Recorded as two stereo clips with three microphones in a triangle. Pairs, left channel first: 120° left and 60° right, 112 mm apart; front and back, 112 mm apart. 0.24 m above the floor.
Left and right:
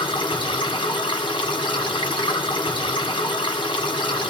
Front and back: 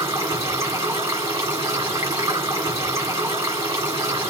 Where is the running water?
135° left, 1.5 m.